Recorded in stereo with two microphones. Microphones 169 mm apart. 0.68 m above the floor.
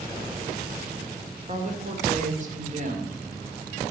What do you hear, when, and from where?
1.5 s a woman speaking: 45° right (ahead or behind), 2.5 m